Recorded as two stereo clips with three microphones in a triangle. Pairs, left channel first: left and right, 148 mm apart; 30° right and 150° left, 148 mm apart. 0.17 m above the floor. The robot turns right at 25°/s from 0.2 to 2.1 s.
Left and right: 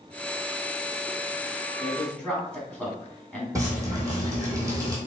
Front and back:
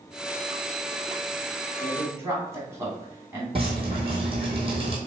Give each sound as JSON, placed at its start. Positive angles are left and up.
{"t": 1.8, "sound": "a man speaking", "azimuth_deg": 150, "distance_m": 1.0}
{"t": 3.5, "sound": "dripping", "azimuth_deg": -160, "distance_m": 1.3}